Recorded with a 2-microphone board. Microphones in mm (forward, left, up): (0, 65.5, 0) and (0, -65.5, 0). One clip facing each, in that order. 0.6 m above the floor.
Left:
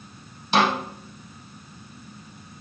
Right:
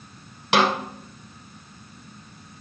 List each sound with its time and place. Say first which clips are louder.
0.5 s a snare drum: right 1 dB; 80° right, 2.5 m